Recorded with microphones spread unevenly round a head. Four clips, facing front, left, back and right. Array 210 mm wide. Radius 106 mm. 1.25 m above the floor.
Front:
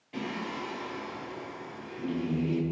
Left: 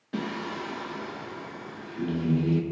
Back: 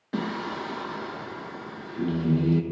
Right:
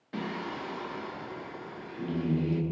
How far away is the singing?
About 1.1 m.